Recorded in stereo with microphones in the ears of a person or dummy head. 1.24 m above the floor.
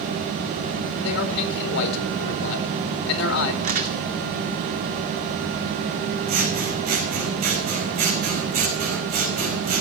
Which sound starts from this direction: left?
A man speaking, at 1.0 s.